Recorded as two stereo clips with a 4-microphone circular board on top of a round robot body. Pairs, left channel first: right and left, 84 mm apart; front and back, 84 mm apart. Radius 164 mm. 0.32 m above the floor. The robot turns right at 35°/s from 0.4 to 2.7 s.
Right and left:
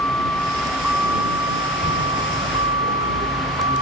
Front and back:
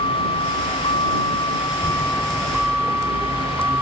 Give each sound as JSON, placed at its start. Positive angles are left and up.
{"t": 0.0, "sound": "a vehicle", "azimuth_deg": -15}